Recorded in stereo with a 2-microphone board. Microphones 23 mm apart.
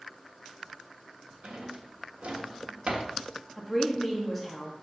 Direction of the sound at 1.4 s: 55° right (ahead or behind).